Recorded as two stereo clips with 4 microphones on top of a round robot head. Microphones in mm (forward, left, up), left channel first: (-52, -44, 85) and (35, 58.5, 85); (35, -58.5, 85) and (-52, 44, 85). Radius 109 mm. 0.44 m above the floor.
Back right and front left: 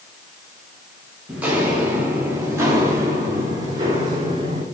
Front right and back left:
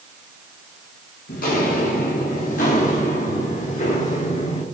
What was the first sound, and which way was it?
Footsteps, 30° right.